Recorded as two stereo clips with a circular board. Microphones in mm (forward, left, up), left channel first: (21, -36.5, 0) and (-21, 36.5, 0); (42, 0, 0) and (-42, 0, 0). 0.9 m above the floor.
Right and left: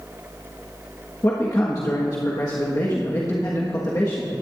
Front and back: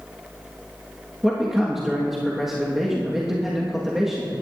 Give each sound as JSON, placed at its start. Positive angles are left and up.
{"t": 1.2, "sound": "a man speaking", "azimuth_deg": -95, "distance_m": 1.4}